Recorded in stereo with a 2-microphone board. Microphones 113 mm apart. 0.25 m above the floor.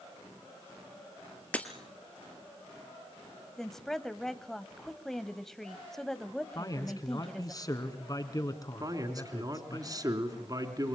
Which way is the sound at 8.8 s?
35° right (ahead or behind).